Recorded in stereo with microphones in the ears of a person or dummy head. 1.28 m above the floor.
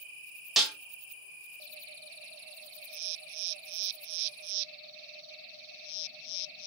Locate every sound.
0.6 s a snare drum: centre (ahead or behind), 0.9 m